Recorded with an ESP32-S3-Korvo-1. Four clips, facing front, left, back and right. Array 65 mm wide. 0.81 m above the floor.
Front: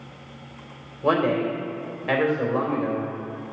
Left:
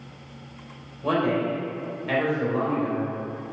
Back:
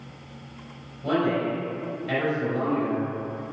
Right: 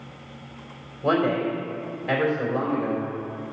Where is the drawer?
No drawer in this recording.